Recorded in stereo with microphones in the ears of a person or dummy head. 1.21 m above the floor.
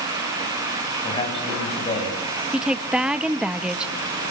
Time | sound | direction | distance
1.0 | a man speaking | 30° left (ahead or behind) | 8 m
2.5 | a woman speaking | 10° right (ahead or behind) | 1.2 m